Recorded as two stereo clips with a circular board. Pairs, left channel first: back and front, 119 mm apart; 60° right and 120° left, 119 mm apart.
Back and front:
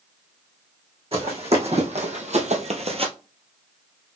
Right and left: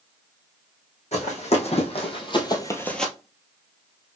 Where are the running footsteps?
35° right, 2.5 m; by 3.1 s 25° left, 0.9 m.